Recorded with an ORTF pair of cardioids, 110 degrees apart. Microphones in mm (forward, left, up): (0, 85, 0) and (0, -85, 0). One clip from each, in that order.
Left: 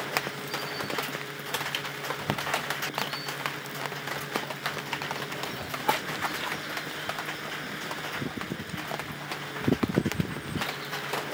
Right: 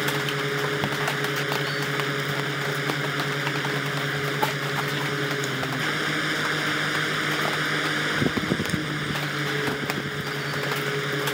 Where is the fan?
65° right.